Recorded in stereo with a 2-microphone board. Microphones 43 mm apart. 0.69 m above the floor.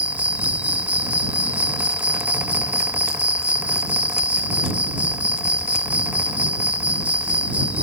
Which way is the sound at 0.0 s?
35° right (ahead or behind).